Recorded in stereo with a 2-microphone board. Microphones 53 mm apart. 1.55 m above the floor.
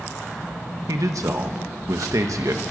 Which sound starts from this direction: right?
A man speaking, at 0.9 s.